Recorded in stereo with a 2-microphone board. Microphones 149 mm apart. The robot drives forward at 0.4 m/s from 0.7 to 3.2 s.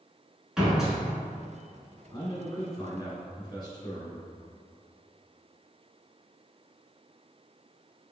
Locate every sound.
0.6 s a door slam: 5° right (ahead or behind), 1.3 m
2.1 s a man speaking: 30° left (ahead or behind), 1.2 m